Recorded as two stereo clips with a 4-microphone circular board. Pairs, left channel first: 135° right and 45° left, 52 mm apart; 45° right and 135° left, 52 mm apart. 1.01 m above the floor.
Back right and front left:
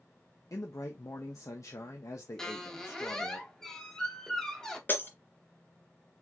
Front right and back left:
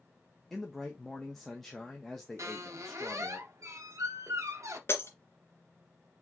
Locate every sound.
0.5 s a man speaking: 130° right, 0.8 m
2.4 s a squeak: 145° left, 0.9 m
4.9 s breaking glass: 85° right, 2.0 m